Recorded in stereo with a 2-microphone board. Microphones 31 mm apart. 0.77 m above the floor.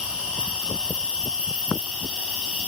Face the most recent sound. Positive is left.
turn(degrees=-40)  # may be behind; listen again after turning